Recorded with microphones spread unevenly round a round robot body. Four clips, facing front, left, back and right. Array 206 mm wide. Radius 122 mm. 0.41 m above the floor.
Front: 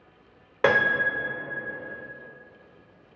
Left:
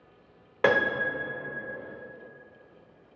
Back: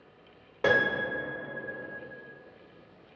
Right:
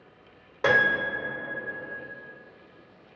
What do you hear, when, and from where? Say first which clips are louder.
0.6 s a piano: right 1 dB, front 4 dB; 5° left, 0.7 m